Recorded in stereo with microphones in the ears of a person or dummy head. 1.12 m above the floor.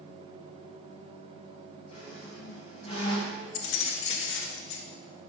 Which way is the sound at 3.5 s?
70° left (ahead or behind).